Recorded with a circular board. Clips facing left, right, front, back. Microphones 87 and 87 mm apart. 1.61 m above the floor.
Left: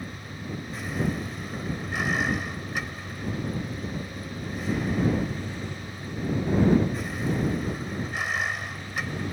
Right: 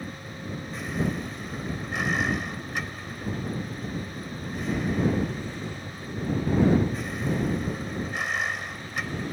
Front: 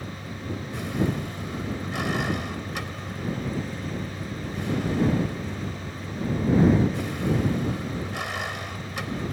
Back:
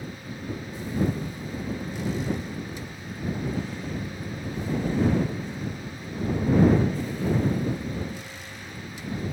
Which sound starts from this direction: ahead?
A vehicle, at 0.0 s.